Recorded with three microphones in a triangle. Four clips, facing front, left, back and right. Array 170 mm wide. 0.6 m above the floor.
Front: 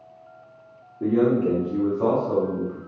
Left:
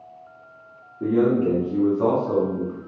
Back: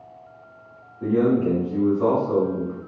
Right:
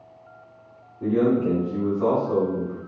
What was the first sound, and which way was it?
A man speaking, 35° left.